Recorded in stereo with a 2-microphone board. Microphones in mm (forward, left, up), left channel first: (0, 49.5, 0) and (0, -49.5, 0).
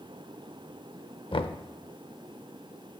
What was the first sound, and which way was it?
Knocking, 60° left (ahead or behind).